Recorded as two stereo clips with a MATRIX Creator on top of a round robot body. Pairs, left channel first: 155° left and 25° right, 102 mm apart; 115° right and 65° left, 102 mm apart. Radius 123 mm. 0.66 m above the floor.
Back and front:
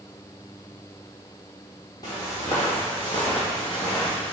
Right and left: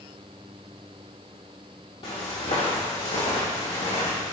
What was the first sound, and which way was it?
Footsteps, 150° right.